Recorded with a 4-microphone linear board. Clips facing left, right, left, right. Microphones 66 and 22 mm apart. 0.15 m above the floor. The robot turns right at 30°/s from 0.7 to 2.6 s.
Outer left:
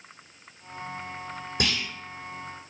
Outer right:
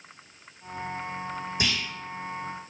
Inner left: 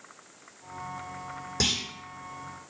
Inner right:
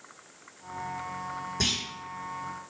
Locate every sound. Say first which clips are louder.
1.6 s a clunk: outer left 2 dB, inner left 2 dB; 55° left (ahead or behind), 1.1 m; by 1.8 s 50° left (ahead or behind), 1.1 m